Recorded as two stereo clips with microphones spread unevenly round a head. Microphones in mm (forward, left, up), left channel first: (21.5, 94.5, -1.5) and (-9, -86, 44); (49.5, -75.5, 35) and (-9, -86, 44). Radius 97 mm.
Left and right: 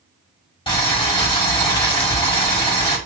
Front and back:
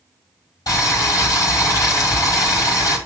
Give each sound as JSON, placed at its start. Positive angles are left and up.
{"t": 0.7, "sound": "boiling", "azimuth_deg": 15, "distance_m": 4.5}